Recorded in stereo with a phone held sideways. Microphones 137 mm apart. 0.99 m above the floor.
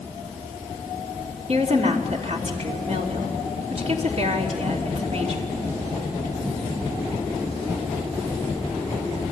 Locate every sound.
1.5 s a woman speaking: 55° right (ahead or behind), 3 m